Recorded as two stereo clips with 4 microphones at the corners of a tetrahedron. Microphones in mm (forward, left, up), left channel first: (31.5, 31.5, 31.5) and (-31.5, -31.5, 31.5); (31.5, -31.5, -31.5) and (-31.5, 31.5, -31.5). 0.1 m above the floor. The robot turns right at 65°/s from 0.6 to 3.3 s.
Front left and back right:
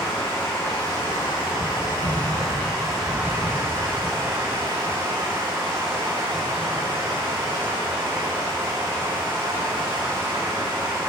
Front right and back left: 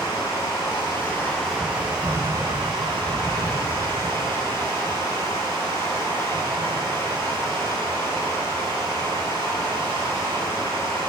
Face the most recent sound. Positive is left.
turn(degrees=160)